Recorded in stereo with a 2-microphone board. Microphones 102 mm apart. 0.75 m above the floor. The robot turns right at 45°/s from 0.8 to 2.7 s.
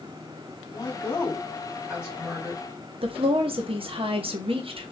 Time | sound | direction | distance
0.7 | a woman speaking | 135° left | 2.0 m
3.0 | a woman speaking | 65° right (ahead or behind) | 0.9 m